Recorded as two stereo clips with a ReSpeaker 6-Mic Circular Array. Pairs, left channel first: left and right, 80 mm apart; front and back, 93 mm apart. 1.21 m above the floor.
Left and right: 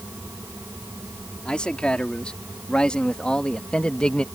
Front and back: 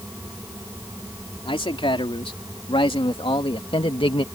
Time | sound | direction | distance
1.4 | a man speaking | 10° left | ?